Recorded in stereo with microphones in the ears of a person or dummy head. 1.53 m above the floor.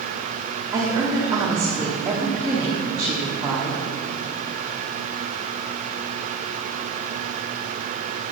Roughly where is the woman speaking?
Right.